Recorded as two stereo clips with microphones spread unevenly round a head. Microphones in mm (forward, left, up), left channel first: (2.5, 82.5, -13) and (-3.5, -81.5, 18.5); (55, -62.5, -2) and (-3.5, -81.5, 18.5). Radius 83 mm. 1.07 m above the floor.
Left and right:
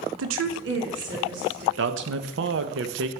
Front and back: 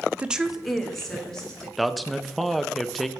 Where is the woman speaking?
90° right, 0.6 m; by 1.7 s 60° right, 2.5 m.